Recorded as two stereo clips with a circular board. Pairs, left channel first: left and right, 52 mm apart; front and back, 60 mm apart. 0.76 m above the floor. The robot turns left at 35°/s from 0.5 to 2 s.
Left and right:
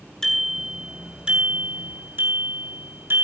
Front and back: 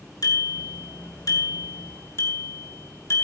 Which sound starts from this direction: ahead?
A bicycle bell, at 0.2 s.